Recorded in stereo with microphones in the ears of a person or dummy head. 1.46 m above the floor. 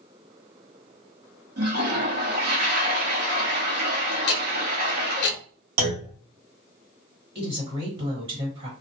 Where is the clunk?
75° right (ahead or behind), 0.8 m.